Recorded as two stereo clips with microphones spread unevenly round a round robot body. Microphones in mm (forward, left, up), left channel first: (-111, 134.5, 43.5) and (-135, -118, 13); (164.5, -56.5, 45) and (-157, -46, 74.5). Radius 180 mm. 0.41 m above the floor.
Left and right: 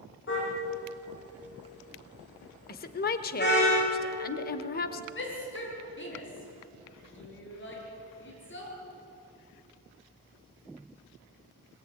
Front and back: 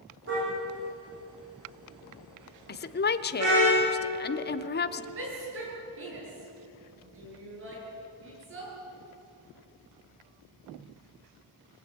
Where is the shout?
125° left, 9 m.